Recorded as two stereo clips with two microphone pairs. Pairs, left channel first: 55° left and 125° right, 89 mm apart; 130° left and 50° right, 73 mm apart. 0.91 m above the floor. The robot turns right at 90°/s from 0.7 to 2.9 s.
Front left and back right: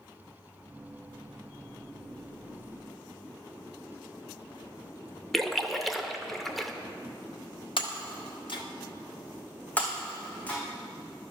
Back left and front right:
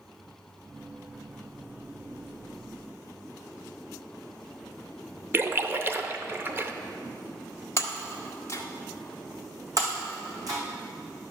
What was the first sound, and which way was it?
A splash, 25° right.